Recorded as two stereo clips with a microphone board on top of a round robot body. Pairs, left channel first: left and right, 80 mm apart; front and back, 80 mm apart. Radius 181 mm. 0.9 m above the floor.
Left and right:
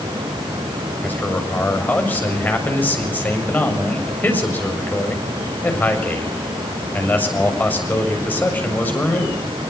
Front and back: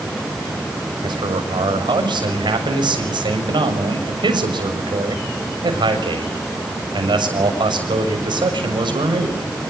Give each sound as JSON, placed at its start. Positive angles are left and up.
{"t": 1.0, "sound": "a man speaking", "azimuth_deg": 160, "distance_m": 7.0}